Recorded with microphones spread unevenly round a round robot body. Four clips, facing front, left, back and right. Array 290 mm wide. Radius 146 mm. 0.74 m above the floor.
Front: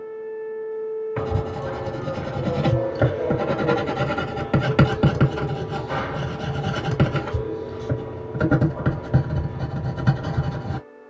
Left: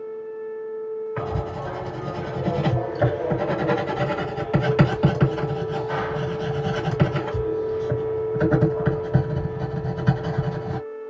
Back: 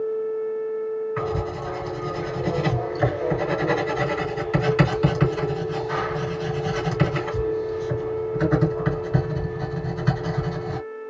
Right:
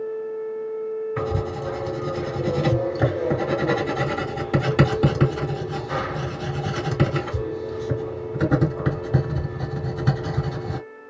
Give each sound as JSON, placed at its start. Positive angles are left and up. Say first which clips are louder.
{"t": 1.2, "sound": "writing", "louder": "right 2 dB, even", "azimuth_deg": -25, "distance_m": 2.0}